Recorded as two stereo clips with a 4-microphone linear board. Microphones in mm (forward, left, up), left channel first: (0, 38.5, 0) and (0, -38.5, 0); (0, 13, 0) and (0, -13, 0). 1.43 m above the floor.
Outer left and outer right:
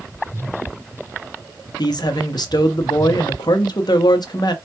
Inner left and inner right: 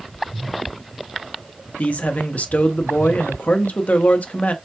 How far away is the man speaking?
About 0.8 m.